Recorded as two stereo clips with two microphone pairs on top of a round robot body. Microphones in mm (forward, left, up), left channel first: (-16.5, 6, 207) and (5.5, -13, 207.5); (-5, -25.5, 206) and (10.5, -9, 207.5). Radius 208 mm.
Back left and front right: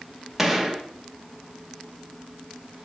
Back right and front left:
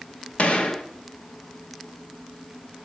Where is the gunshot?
120° right, 0.7 m.